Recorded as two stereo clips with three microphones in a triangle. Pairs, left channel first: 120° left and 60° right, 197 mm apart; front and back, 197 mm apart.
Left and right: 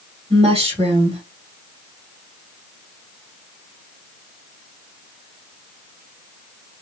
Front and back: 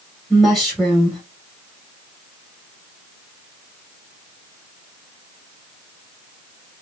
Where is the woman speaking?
90° right, 1.2 m.